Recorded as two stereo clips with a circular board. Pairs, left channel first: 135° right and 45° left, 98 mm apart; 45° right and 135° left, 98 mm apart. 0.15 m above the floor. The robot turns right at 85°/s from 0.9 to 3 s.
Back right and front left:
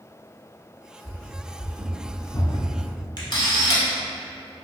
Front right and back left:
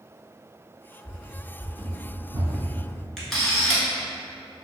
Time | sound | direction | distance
1.0 | running footsteps | 5° right | 1.2 m
3.2 | a camera shutter | 130° right | 1.0 m